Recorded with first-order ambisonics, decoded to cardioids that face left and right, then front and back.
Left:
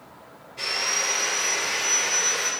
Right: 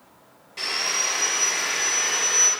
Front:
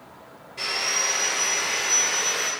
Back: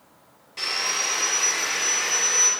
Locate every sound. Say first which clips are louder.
0.6 s sawing: right 1 dB, even; 140° right, 3.5 m